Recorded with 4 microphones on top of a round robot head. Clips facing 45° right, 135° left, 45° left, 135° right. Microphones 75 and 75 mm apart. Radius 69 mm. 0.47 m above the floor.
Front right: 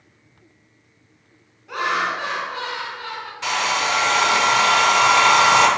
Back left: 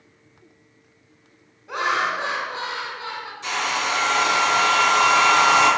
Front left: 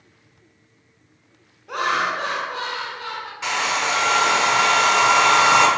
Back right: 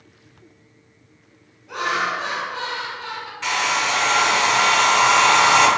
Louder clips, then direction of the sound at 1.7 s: Even, front left 1 dB; 70° left.